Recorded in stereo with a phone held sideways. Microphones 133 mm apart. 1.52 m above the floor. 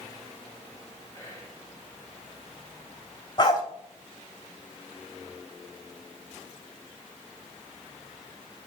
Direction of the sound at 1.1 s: 25° left (ahead or behind).